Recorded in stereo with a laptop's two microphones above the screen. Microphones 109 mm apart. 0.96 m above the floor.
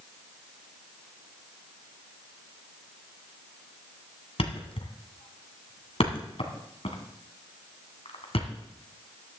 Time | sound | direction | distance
4.4 | a thud | 65° left (ahead or behind) | 2 m